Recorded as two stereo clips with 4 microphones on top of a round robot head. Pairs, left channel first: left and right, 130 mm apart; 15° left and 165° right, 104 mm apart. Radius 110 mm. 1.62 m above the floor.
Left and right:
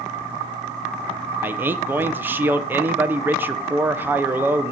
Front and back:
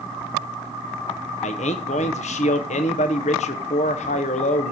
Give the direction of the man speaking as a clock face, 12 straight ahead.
1 o'clock.